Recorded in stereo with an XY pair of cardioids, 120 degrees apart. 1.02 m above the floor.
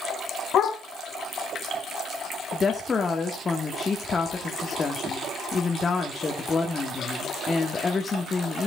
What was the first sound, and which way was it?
A dog barking, 55° left.